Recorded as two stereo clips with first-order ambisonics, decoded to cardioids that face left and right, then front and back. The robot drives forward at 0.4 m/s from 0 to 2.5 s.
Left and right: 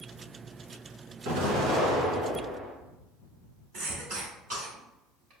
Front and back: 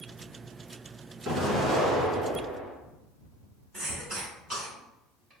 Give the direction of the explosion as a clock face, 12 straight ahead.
4 o'clock.